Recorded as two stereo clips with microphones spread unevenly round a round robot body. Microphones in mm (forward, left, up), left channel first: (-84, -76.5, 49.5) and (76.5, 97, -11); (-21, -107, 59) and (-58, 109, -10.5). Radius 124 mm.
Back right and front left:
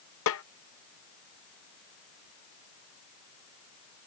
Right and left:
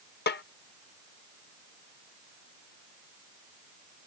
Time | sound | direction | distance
0.3 | a snare drum | 125° right | ?